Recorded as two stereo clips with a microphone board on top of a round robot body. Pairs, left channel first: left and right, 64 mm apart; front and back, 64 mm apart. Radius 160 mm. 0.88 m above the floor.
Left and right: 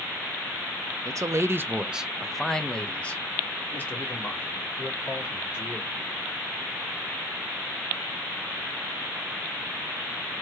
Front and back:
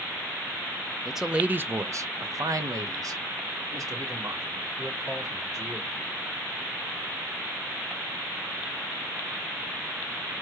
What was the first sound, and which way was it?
A man speaking, 90° right.